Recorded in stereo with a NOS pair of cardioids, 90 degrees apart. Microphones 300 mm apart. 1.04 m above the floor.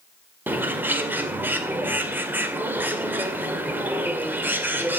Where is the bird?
5° right, 2.5 m.